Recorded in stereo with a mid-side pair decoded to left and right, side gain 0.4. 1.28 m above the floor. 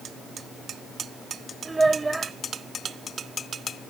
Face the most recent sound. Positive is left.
turn(degrees=-20)